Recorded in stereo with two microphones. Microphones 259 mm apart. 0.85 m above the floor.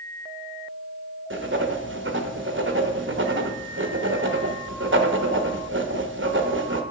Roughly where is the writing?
Right.